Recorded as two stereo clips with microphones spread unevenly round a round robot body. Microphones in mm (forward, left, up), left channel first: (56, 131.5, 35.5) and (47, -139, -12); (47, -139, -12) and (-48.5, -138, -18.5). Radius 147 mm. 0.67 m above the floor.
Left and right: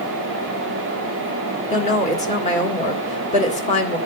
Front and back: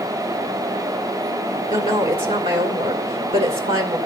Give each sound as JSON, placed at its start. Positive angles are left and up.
{"t": 1.7, "sound": "a woman speaking", "azimuth_deg": 160, "distance_m": 1.8}